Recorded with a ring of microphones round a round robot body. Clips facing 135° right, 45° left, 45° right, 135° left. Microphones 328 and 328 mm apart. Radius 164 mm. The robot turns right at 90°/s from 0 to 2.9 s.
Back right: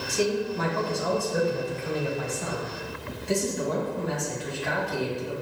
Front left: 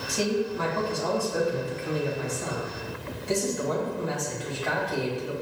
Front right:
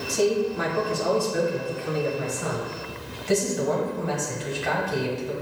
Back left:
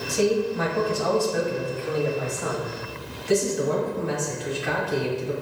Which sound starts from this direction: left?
A man speaking, at 0.1 s.